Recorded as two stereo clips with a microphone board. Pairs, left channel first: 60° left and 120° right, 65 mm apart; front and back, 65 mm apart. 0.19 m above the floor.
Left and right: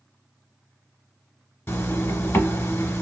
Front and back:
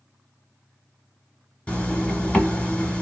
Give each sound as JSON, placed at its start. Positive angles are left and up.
{"t": 1.7, "sound": "a zipper", "azimuth_deg": 60, "distance_m": 0.9}